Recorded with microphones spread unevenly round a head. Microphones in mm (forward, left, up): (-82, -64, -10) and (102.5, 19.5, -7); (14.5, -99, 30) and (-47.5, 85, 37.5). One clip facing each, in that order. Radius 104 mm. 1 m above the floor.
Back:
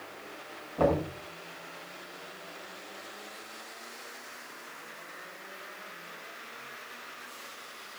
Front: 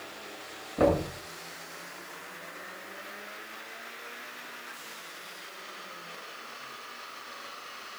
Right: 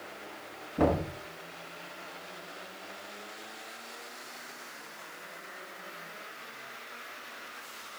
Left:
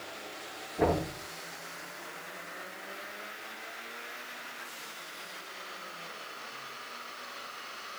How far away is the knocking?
About 9.5 m.